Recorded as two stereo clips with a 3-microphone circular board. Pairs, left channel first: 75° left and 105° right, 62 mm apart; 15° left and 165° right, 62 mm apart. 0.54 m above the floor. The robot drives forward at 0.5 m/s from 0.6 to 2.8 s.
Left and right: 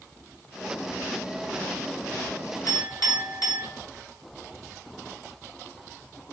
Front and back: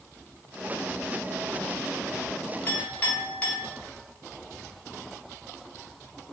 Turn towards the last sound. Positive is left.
turn(degrees=80)